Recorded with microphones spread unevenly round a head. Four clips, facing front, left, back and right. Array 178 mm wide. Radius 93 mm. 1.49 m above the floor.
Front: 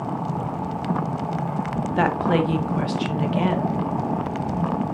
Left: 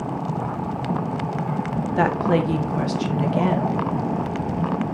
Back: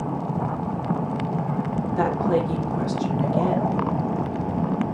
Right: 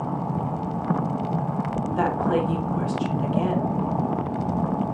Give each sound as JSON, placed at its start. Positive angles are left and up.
{"t": 2.0, "sound": "a woman speaking", "azimuth_deg": 55, "distance_m": 2.0}